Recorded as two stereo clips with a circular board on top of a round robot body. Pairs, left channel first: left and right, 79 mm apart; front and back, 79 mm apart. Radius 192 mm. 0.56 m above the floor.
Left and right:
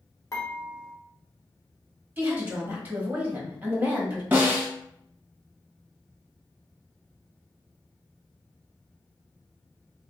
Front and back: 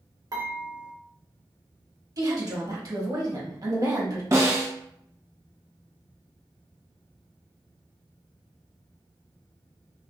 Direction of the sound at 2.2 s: 155° right.